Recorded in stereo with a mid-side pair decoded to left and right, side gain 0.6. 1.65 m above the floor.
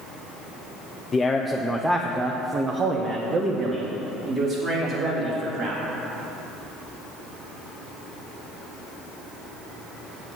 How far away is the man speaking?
About 0.6 m.